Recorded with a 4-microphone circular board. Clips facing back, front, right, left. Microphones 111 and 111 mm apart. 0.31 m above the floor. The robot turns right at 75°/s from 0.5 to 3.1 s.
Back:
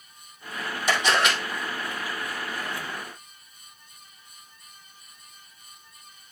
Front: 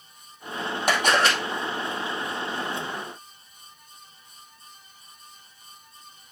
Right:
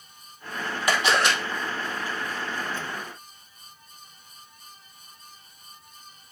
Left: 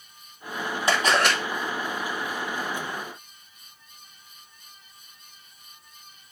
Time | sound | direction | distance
0.9 | a camera shutter | 25° left | 2.5 m